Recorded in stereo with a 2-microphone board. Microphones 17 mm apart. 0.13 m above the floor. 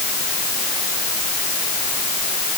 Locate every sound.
Only background noise.